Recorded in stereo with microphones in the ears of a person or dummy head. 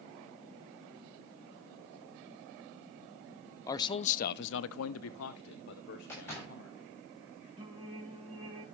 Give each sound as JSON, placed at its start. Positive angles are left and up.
{"t": 3.7, "sound": "a man speaking", "side_deg": 15, "distance_m": 0.6}
{"t": 6.1, "sound": "a door slam", "side_deg": 10, "distance_m": 6.0}
{"t": 7.6, "sound": "singing", "side_deg": -25, "distance_m": 1.8}